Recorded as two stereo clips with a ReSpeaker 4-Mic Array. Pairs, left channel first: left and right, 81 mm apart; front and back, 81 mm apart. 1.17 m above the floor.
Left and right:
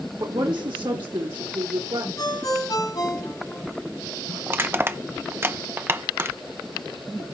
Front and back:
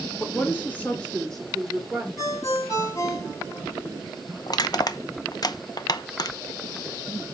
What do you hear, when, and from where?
0.2 s a woman speaking: 60° right, 1.9 m; by 2.1 s 90° right, 2.5 m
2.2 s a ringtone: 50° left, 8 m
4.5 s crushing: 30° right, 0.8 m